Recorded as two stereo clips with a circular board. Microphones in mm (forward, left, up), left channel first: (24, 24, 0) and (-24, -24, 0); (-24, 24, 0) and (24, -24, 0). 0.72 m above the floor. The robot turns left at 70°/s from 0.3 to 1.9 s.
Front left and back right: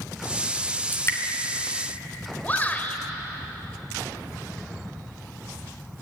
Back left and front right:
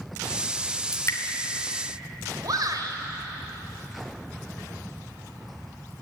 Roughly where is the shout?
Ahead.